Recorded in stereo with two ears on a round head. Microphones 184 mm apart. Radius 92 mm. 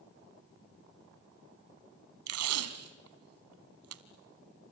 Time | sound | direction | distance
2.3 | tape being pulled | 85° right | 1.3 m